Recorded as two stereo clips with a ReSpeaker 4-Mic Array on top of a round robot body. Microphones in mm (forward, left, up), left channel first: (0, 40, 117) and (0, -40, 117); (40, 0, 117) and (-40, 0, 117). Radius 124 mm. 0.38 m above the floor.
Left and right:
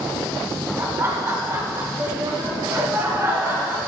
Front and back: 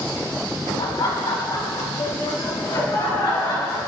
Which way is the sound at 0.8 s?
30° right.